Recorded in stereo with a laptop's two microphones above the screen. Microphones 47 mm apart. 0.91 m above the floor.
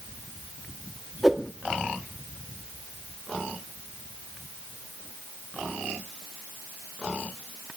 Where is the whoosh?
5° right (ahead or behind), 1.6 m.